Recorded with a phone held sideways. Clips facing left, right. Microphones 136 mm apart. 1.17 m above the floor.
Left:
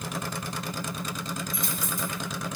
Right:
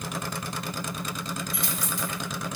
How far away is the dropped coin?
About 2 m.